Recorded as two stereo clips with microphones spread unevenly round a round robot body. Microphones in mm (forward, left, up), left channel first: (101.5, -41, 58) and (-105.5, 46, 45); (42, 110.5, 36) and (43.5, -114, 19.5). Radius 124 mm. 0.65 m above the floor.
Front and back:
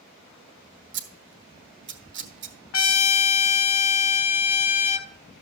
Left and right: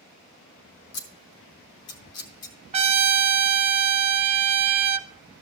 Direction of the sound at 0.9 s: 120° left.